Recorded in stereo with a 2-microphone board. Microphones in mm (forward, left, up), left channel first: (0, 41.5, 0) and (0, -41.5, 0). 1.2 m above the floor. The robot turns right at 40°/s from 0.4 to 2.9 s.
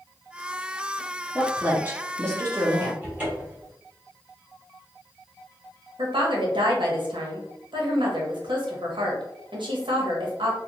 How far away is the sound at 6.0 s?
About 1.0 m.